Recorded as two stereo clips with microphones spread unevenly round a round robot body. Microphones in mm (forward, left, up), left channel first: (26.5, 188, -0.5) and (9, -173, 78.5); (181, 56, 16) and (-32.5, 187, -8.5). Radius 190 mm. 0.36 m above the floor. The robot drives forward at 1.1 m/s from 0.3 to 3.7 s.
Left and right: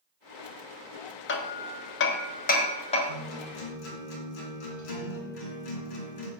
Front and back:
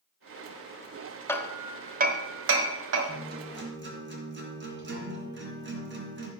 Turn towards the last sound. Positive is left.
turn(degrees=105)